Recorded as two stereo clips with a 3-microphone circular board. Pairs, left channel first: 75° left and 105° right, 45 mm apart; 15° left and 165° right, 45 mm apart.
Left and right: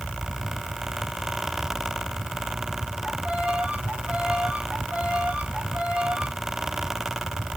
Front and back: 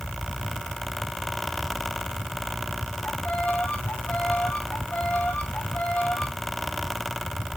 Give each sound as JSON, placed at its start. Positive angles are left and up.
{"t": 3.0, "sound": "a violin", "azimuth_deg": -45, "distance_m": 2.0}